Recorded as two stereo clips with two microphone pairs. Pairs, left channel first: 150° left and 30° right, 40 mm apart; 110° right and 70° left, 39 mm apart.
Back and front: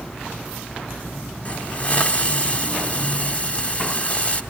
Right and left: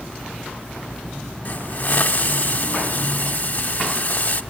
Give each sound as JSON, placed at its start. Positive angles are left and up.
{"t": 1.4, "sound": "a hiss", "azimuth_deg": -155, "distance_m": 0.7}